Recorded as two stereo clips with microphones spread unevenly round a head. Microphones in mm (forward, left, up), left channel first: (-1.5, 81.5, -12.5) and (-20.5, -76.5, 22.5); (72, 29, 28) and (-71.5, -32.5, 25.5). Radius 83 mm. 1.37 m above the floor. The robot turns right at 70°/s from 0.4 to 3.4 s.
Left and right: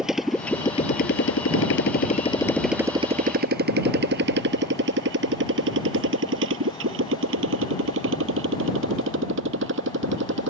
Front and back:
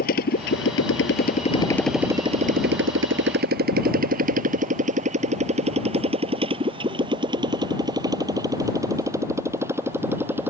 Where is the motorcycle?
10° right; by 10.5 s 80° right.